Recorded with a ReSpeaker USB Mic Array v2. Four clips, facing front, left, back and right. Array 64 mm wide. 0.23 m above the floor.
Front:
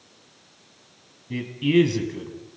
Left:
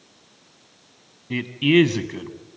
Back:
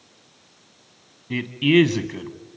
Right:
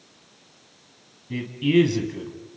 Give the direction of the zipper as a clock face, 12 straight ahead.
I don't hear a zipper.